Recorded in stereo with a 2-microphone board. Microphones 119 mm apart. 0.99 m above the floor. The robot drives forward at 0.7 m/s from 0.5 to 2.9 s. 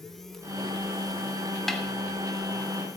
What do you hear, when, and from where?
1.7 s a snare drum: 5° left (ahead or behind), 1.2 m